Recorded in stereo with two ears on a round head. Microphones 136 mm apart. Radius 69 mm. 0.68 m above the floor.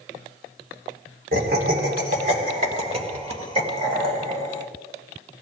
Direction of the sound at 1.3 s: 65° right (ahead or behind).